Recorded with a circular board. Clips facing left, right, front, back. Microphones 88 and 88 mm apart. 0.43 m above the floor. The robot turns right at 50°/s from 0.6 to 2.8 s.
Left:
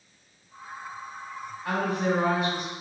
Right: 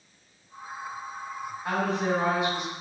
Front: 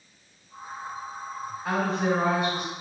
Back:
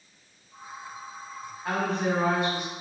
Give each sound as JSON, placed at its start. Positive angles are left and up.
{"t": 1.6, "sound": "a woman speaking", "azimuth_deg": -100, "distance_m": 1.3}